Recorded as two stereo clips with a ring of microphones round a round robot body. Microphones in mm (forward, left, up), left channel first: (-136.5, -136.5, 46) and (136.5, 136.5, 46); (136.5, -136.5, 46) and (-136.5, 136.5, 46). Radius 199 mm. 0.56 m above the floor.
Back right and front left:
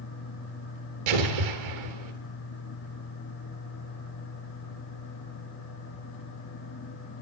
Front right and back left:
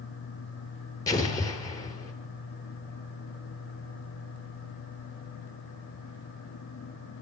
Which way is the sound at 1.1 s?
35° left.